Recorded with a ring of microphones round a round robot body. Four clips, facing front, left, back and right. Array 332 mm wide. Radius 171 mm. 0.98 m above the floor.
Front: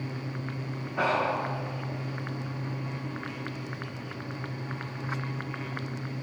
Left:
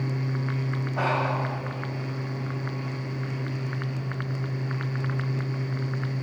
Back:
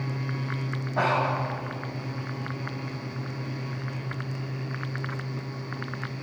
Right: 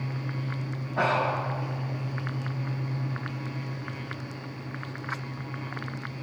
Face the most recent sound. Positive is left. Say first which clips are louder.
# right 1 dB, back 2 dB
turn(degrees=-175)